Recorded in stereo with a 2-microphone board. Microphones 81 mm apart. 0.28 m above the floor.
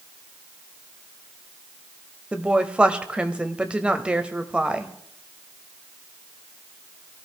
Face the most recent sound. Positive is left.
turn(degrees=-15)  # may be behind; listen again after turning